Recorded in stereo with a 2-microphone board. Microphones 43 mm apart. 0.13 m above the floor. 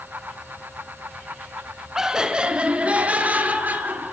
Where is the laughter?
10° right (ahead or behind), 1.1 m; by 4.1 s 40° right (ahead or behind), 2.0 m.